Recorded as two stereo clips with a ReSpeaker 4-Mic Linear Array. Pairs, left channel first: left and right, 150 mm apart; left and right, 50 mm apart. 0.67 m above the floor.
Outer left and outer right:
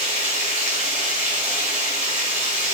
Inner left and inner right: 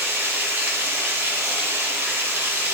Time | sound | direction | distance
0.0 | running water | 50° right (ahead or behind) | 0.8 m